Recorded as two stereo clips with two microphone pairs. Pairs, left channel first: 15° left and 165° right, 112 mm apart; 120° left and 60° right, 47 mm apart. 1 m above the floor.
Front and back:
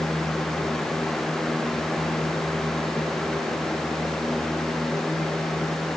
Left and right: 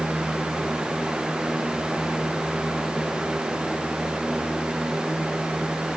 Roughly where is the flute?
No flute in this recording.